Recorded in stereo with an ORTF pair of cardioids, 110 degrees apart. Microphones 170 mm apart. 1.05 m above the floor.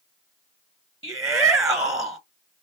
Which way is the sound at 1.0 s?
20° right.